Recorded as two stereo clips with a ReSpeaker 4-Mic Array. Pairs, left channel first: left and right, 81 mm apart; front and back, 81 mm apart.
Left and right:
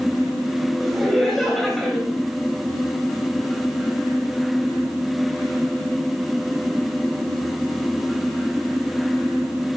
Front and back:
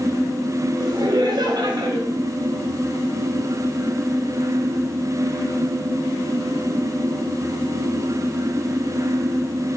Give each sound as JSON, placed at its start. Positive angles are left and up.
{"t": 0.8, "sound": "laughter", "azimuth_deg": 180, "distance_m": 1.9}